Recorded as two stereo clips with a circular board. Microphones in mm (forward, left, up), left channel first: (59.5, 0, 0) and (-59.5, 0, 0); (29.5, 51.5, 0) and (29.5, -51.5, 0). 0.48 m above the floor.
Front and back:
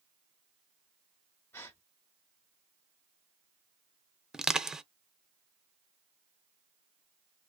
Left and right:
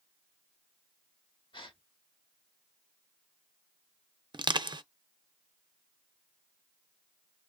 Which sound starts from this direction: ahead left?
A gasp, at 1.5 s.